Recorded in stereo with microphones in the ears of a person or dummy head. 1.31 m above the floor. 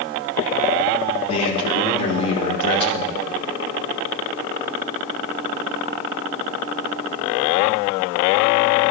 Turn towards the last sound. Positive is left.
turn(degrees=40)  # may be behind; listen again after turning